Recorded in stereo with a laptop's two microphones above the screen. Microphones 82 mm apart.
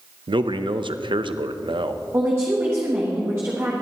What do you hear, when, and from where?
0.3 s a man speaking: 80° right, 0.6 m
2.1 s a woman speaking: 30° right (ahead or behind), 1.3 m